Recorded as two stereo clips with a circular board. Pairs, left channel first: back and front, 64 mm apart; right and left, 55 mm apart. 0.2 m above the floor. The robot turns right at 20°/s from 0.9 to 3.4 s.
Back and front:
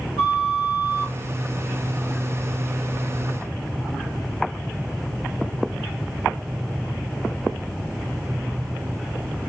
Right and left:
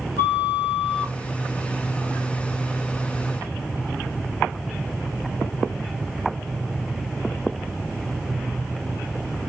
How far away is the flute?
About 1.8 m.